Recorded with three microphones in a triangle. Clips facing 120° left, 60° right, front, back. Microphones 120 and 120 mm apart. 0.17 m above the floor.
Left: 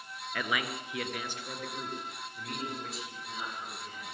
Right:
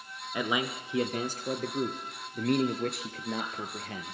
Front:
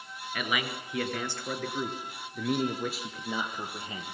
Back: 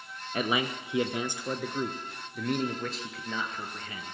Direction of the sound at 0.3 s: 130° right.